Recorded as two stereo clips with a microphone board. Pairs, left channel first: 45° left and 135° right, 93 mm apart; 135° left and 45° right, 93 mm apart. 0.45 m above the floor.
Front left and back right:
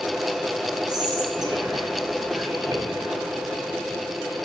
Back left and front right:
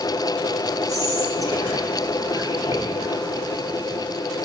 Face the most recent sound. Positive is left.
turn(degrees=-95)